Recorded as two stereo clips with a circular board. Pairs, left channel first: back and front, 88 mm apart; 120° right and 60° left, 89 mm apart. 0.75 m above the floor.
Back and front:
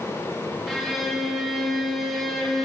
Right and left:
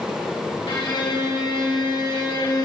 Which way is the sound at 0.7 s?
90° right.